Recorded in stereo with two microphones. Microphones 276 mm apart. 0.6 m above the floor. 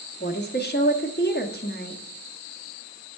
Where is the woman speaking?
35° left (ahead or behind), 1.0 m.